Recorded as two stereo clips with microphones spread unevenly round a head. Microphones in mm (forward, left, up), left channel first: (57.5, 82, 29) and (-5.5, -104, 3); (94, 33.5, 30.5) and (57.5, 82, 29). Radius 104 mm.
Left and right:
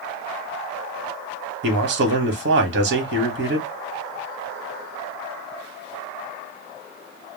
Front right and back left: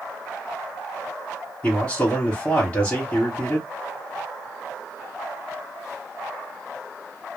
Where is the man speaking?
130° right, 1.1 m.